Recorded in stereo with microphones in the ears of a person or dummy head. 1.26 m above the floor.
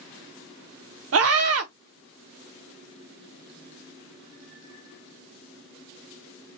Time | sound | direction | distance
1.1 | a scream | 65° right (ahead or behind) | 0.6 m